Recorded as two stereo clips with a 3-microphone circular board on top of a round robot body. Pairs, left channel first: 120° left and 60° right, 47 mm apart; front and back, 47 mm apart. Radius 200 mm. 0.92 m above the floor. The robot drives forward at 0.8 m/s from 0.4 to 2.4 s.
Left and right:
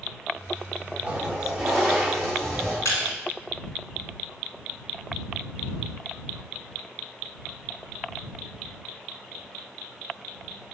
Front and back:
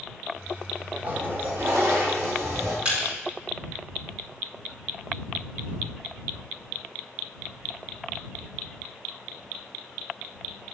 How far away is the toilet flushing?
About 0.9 m.